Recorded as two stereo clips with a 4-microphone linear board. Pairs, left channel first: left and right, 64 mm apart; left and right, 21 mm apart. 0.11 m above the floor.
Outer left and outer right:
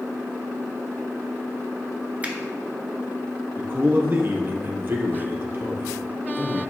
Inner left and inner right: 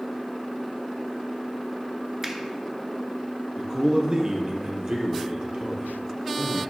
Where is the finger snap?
25° right (ahead or behind), 1.2 m.